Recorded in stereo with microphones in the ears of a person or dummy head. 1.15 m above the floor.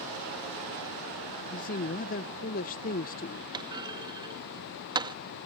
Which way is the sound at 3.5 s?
30° right (ahead or behind).